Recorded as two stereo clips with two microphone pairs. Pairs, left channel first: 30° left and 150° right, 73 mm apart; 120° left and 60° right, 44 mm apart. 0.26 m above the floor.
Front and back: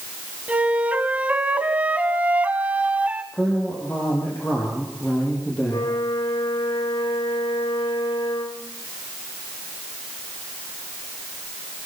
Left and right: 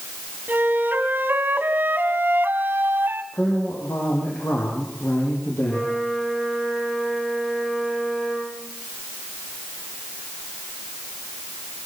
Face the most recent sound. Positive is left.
turn(degrees=40)